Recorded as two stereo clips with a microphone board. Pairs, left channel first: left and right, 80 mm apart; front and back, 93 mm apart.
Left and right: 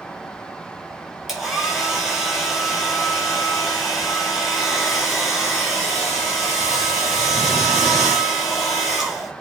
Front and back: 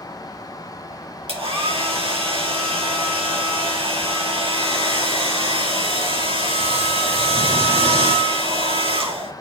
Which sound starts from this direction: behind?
A hair dryer, at 1.3 s.